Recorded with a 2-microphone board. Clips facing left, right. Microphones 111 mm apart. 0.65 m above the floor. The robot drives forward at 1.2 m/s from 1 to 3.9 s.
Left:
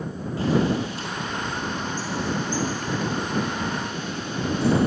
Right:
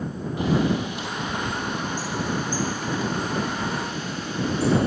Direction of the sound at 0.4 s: 20° right (ahead or behind).